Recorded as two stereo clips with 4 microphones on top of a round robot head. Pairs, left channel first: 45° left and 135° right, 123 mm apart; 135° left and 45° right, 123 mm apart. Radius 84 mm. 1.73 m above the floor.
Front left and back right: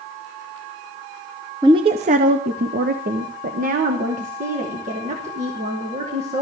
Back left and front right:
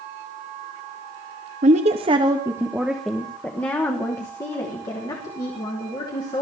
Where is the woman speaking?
75° right, 1.1 m; by 6.4 s 170° right, 4 m.